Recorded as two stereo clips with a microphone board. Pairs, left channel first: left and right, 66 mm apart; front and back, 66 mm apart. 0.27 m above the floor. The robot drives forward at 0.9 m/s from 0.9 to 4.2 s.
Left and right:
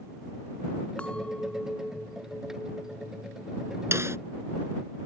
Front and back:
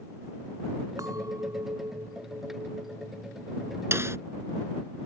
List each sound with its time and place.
1.0 s a clink: 160° left; by 3.8 s 170° left
3.9 s a snare drum: 135° right